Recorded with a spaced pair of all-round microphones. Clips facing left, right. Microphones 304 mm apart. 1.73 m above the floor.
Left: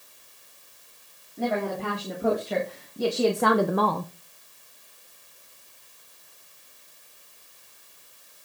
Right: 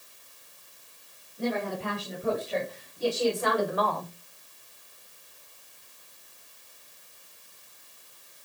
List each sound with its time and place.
1.4 s a woman speaking: 80° left, 4 m; by 4.1 s 25° left (ahead or behind), 0.5 m